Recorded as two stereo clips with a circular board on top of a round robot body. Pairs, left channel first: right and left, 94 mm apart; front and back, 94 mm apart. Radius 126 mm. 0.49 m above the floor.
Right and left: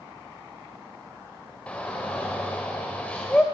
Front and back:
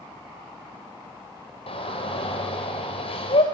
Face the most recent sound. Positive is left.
turn(degrees=-10)